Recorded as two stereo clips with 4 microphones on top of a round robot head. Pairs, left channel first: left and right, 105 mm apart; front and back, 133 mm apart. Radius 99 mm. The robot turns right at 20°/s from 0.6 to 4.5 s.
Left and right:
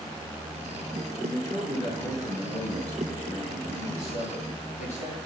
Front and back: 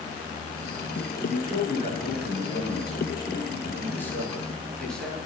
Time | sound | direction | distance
1.2 | a man speaking | 20° left | 6 m